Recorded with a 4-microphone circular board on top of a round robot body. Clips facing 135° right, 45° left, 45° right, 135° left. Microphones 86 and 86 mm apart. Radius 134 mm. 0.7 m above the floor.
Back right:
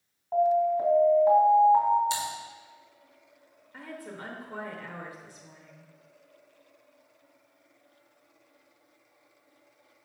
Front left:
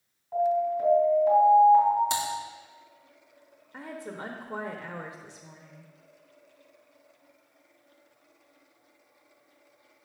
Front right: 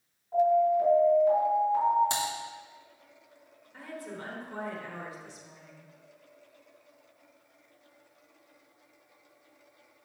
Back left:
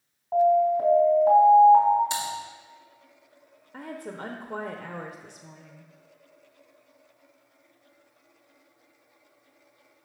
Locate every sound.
0.3 s an alarm: 175° left, 3.5 m
2.1 s typing on a keyboard: straight ahead, 2 m
3.7 s a woman speaking: 110° left, 1.0 m